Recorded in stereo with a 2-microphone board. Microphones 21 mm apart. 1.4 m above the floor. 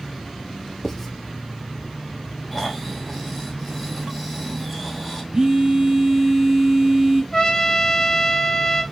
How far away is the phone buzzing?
About 0.9 m.